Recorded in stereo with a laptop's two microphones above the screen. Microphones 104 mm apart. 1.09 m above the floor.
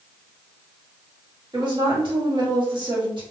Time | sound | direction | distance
1.5 | a woman speaking | 45° right (ahead or behind) | 1.7 m